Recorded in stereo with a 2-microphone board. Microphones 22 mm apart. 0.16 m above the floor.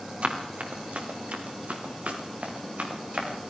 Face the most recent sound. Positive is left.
turn(degrees=-70)  # may be behind; listen again after turning